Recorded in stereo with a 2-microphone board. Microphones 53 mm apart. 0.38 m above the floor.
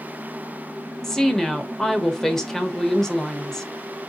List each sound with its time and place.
1.0 s a woman speaking: 10° left (ahead or behind), 1.0 m